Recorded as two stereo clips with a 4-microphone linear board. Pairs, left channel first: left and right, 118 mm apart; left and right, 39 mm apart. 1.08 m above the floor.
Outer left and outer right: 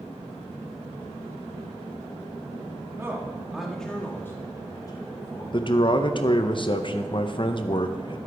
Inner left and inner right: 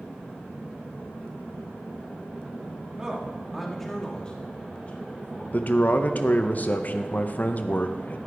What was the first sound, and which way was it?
A man speaking, 20° right (ahead or behind).